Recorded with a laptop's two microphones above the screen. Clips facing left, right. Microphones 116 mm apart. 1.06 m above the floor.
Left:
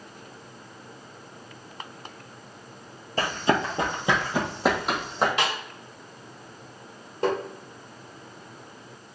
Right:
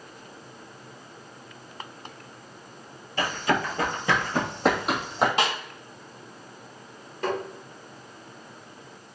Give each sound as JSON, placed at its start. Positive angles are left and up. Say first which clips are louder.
{"t": 3.2, "sound": "running footsteps", "louder": "left 2 dB", "side_deg": 35, "distance_m": 1.2}
{"t": 5.4, "sound": "a snare drum", "louder": "right 2 dB", "side_deg": -30, "distance_m": 1.9}
{"t": 7.2, "sound": "tapping", "louder": "left 3 dB", "side_deg": 30, "distance_m": 1.8}